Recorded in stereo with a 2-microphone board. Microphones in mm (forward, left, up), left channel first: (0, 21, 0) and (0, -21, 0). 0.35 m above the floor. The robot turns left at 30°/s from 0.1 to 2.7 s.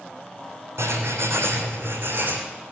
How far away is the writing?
About 3 m.